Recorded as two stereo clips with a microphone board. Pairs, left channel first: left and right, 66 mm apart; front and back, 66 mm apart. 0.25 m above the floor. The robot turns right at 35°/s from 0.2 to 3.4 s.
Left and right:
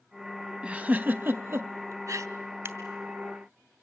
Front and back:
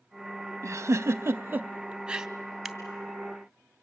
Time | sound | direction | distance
0.6 | a giggle | 155° right | 0.6 m
2.6 | scissors | 90° right | 1.4 m